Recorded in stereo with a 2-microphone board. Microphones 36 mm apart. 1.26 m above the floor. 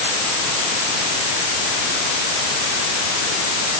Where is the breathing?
I don't hear breathing.